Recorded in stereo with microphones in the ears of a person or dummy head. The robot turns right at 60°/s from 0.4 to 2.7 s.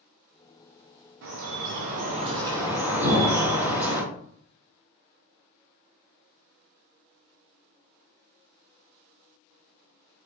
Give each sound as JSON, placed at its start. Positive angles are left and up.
{"t": 1.2, "sound": "dripping", "azimuth_deg": -105, "distance_m": 0.6}
{"t": 3.0, "sound": "an explosion", "side_deg": -60, "distance_m": 1.1}